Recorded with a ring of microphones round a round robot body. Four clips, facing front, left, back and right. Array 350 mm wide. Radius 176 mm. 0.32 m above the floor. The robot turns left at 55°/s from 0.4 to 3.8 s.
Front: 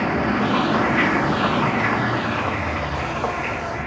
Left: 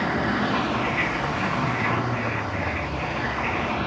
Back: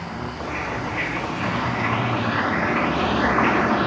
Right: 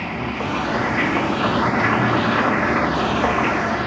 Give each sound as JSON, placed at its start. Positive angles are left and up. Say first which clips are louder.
{"t": 0.0, "sound": "running water", "louder": "left 2 dB, front 10 dB", "azimuth_deg": 15}